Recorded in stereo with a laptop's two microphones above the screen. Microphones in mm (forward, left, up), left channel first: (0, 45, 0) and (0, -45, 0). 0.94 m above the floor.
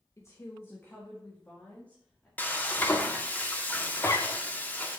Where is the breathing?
I don't hear breathing.